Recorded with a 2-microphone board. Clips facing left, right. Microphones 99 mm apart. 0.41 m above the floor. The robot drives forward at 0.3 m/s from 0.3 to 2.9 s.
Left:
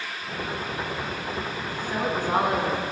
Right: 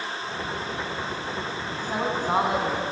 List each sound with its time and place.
1.7 s a woman speaking: 20° right (ahead or behind), 2.5 m